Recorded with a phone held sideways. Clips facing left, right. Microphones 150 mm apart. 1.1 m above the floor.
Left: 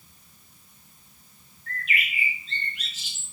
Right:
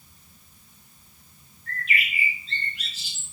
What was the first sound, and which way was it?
A bird, 35° right (ahead or behind).